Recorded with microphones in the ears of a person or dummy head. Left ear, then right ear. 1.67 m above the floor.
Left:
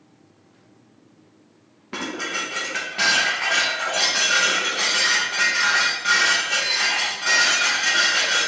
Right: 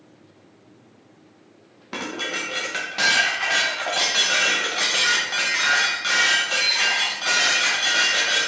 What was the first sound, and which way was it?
Dishes clattering, 10° right (ahead or behind).